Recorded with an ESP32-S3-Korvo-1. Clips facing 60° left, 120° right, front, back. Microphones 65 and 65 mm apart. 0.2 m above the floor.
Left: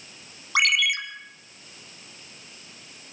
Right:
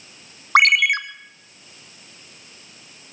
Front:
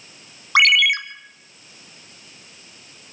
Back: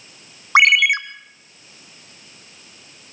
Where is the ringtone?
120° right, 0.9 m.